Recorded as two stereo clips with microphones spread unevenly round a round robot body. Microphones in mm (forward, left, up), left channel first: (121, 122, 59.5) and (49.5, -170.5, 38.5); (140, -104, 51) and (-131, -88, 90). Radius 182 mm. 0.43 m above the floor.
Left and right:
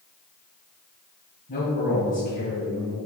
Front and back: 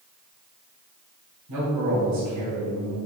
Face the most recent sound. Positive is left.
turn(degrees=145)